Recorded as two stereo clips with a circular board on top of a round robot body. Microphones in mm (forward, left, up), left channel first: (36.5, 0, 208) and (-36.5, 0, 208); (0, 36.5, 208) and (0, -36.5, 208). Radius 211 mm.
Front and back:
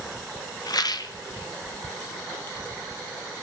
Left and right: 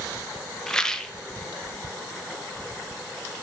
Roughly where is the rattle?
Ahead.